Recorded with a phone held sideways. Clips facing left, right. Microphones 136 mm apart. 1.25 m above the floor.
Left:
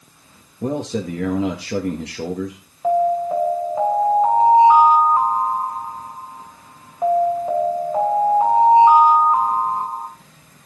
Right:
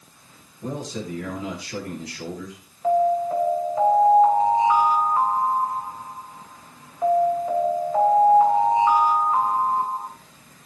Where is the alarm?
20° left (ahead or behind), 4 m.